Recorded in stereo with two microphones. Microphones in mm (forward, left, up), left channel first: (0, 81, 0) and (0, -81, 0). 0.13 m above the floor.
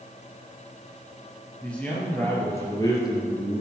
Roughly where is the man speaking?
Centre.